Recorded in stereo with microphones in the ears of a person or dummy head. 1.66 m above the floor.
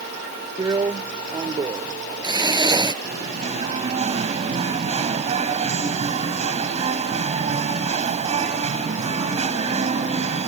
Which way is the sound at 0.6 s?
25° right (ahead or behind).